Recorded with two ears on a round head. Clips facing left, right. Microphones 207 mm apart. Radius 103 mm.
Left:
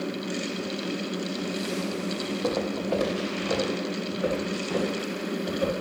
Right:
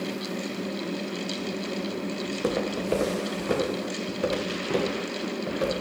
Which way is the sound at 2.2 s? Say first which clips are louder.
Even; 15° right (ahead or behind).